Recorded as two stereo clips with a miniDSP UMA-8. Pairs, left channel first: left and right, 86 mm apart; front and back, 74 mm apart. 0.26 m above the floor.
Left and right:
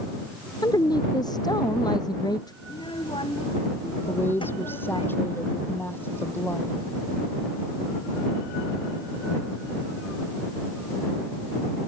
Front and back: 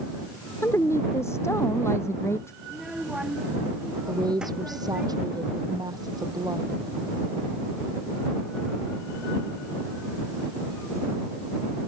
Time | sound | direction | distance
0.6 | a woman speaking | 50° left | ?
2.6 | a child speaking | 100° left | ?
4.1 | a woman speaking | 155° left | ?